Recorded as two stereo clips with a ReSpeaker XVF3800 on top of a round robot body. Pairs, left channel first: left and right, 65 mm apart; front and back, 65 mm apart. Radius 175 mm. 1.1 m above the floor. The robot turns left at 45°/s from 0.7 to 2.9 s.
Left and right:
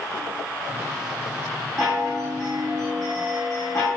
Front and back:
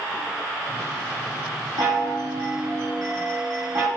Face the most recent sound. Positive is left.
turn(degrees=150)